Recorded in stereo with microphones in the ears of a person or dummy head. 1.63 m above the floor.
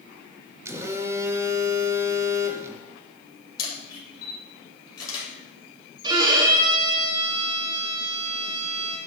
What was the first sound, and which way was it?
A phone buzzing, 15° right (ahead or behind).